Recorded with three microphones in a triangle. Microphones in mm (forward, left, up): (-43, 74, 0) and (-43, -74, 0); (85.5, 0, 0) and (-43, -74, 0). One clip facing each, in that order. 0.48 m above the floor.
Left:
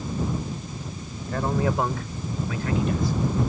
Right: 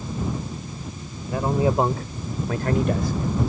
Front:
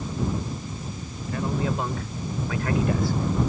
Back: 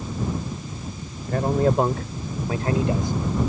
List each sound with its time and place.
1.3 s a man speaking: 165° right; by 3.4 s 75° right